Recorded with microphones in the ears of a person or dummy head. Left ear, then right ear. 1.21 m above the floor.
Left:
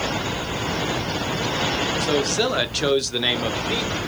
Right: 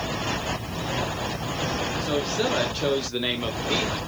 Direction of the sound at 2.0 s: 20° left (ahead or behind).